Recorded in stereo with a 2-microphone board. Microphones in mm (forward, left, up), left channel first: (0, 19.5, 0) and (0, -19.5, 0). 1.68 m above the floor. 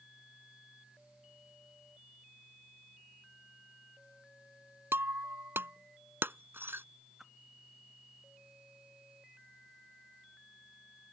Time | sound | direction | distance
4.9 | breaking glass | 75° right (ahead or behind) | ?
7.2 | a whoosh | 10° right (ahead or behind) | ?